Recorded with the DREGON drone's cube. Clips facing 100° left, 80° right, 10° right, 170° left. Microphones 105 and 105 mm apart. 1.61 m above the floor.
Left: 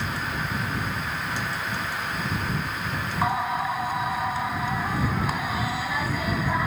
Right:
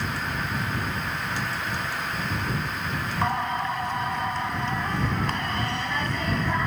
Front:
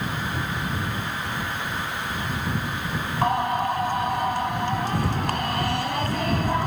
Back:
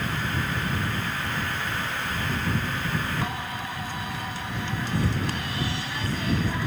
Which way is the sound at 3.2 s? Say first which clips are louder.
Left 1 dB, front 10 dB; 15° left.